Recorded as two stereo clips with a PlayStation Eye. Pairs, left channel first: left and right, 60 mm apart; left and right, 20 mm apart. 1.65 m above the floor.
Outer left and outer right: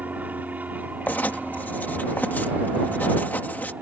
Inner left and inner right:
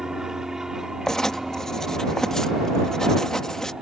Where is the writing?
30° left (ahead or behind).